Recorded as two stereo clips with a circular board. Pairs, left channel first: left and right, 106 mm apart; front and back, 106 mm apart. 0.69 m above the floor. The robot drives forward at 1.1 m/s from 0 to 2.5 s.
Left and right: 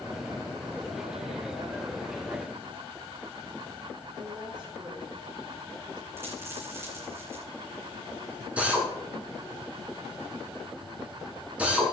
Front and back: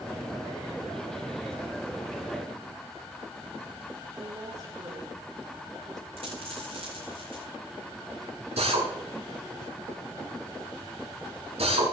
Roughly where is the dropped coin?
Behind right.